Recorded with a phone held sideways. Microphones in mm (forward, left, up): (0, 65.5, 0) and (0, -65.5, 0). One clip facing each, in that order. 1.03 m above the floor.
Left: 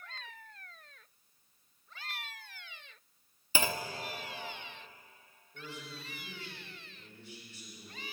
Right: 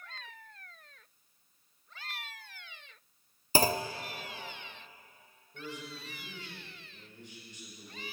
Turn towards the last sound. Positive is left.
turn(degrees=-15)  # may be behind; listen again after turning